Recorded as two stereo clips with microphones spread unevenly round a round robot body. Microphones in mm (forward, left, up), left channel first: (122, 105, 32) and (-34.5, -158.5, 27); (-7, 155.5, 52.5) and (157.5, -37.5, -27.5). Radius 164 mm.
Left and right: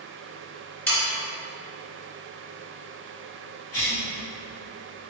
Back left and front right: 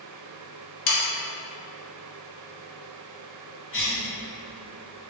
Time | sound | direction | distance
0.9 | sawing | 145° left | 0.6 m
3.7 | a cough | 85° left | 1.5 m